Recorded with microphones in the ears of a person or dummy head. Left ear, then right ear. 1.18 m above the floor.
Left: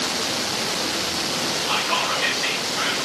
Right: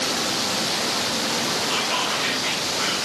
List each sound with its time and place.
1.7 s whispering: 45° left (ahead or behind), 5.5 m